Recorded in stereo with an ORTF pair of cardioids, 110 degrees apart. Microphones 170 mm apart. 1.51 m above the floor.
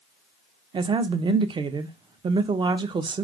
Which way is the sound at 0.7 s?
25° right.